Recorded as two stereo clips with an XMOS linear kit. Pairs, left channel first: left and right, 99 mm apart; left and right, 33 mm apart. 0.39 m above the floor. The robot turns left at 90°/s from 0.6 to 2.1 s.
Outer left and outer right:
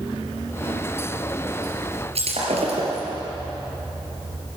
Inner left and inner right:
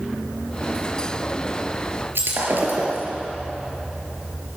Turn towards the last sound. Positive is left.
turn(degrees=-75)  # may be behind; listen again after turning